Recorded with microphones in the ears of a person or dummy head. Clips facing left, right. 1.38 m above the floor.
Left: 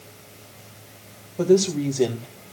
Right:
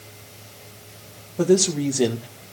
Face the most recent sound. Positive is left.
turn(degrees=-10)  # may be behind; listen again after turning